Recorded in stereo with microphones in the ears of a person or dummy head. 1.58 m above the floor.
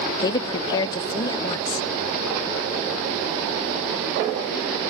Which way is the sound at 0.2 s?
25° left (ahead or behind).